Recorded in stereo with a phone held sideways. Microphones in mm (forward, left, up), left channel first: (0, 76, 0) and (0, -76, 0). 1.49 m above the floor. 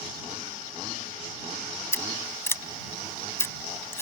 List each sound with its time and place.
1.9 s scissors: 15° left (ahead or behind)